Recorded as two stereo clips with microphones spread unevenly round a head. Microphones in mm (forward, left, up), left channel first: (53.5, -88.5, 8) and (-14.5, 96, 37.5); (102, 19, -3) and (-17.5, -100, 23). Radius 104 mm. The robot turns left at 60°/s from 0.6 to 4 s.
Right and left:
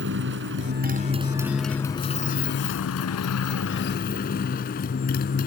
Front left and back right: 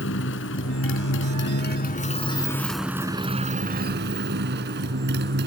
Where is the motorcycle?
85° left; by 5.5 s 120° right.